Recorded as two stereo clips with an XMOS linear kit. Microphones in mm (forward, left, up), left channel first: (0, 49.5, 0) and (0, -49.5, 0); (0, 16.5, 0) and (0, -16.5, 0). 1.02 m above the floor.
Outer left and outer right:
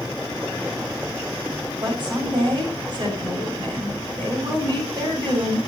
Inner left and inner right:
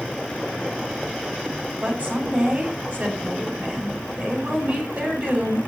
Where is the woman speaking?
45° right (ahead or behind), 9 m.